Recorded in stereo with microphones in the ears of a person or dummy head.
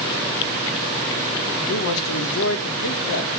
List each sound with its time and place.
1.7 s a man speaking: 75° left (ahead or behind), 1.9 m